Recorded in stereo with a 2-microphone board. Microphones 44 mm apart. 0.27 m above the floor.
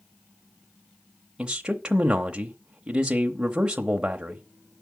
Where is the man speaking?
15° right (ahead or behind), 0.9 m.